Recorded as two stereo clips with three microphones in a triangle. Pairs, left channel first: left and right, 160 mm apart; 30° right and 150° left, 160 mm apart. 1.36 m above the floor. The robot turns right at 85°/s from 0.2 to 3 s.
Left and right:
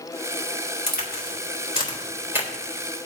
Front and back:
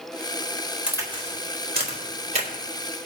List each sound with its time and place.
0.9 s a crack: 65° left, 2.5 m; by 2.5 s 155° right, 2.5 m